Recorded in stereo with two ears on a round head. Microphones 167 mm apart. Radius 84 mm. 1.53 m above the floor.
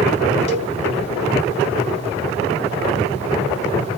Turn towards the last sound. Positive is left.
turn(degrees=35)  # may be behind; listen again after turning